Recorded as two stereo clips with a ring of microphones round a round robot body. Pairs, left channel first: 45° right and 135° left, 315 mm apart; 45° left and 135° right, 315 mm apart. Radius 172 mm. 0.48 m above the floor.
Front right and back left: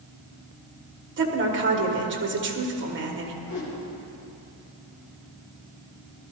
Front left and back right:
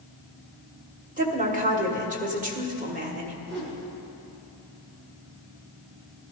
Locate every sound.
1.2 s a woman speaking: 170° left, 1.6 m
3.4 s a whoosh: 80° right, 2.5 m